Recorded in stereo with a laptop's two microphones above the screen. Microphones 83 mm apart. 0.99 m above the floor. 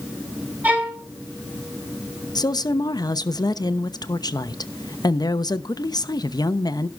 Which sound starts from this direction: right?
A violin, at 0.6 s.